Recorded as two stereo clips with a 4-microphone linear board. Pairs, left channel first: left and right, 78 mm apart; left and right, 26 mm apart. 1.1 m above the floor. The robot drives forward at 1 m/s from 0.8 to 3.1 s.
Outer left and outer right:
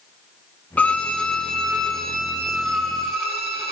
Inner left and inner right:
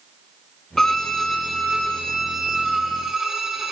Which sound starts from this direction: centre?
A violin, at 0.8 s.